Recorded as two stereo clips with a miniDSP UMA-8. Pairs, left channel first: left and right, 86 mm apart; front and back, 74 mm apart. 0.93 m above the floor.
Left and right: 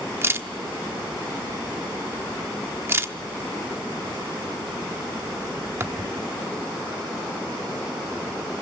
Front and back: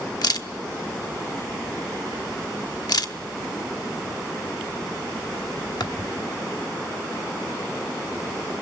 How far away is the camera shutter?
About 1.0 m.